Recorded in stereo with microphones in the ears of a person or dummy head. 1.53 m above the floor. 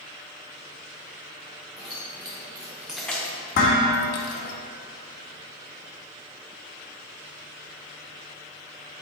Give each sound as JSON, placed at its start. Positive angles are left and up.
{"t": 1.8, "sound": "keys jangling", "side_deg": -30, "distance_m": 1.2}
{"t": 3.5, "sound": "dishes clattering", "side_deg": 50, "distance_m": 1.4}